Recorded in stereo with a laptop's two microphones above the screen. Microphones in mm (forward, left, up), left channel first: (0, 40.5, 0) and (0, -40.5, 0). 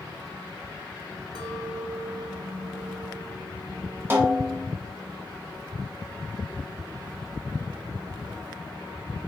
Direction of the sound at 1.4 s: 60° right (ahead or behind).